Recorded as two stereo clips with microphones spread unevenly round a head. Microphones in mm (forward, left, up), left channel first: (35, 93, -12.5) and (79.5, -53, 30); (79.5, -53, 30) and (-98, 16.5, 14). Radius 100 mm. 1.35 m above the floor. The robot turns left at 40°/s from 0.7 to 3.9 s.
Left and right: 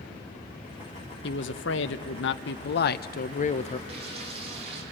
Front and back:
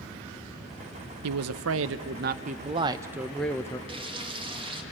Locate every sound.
1.2 s a man speaking: 150° left, 0.8 m; by 3.8 s 50° left, 0.8 m
3.9 s frying: 140° right, 2.5 m